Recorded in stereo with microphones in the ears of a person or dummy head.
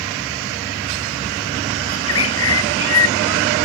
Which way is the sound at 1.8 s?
85° left.